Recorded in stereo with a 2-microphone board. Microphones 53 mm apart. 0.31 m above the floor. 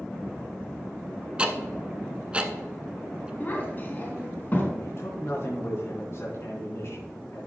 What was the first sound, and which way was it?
Ticking, 20° right (ahead or behind).